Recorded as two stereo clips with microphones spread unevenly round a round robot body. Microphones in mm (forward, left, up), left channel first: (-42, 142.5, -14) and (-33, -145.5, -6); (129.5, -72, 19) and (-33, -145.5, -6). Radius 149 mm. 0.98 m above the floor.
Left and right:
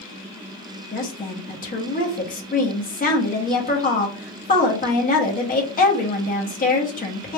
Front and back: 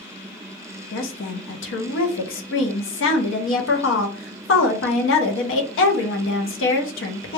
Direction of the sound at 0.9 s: 25° left.